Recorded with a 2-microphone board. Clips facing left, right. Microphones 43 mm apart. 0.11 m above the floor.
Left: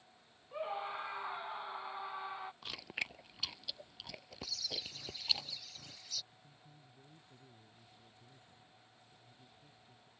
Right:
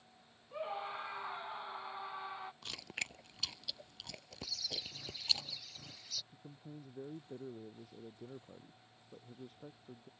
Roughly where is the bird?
Centre.